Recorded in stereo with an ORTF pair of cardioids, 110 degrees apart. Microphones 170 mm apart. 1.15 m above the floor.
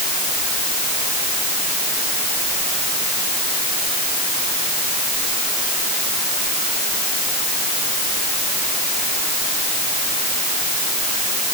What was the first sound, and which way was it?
Only background noise.